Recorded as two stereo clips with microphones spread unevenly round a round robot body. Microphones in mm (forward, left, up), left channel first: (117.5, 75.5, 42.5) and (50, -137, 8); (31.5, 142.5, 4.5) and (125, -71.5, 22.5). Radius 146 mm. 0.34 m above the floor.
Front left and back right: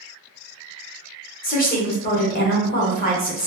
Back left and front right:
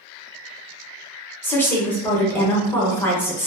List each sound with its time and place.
1.4 s a woman speaking: 50° left, 0.9 m